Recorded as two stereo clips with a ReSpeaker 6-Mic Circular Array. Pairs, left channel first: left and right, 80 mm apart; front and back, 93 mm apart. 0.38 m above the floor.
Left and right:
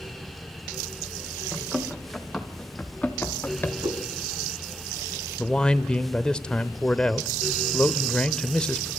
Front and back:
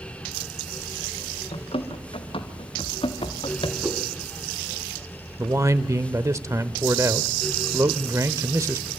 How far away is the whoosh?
About 3.5 m.